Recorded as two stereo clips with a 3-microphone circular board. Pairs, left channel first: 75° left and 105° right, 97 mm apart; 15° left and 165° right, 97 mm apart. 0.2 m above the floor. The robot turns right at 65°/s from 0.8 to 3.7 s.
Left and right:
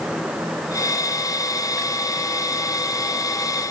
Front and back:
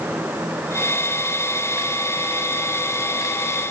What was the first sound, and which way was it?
Only background noise.